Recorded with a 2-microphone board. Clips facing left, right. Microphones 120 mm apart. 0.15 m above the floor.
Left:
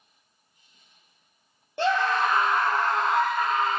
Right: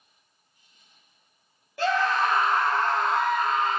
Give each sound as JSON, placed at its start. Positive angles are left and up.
{"t": 1.8, "sound": "a scream", "side_deg": 30, "distance_m": 2.5}